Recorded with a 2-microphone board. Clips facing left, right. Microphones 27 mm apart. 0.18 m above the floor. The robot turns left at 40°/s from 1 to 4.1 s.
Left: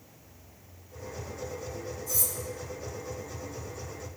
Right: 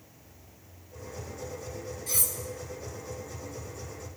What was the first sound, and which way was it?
Cutlery clinking, 65° right (ahead or behind).